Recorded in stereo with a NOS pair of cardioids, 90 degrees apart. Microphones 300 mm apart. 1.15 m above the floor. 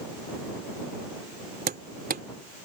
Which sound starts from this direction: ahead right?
Hammering, at 1.7 s.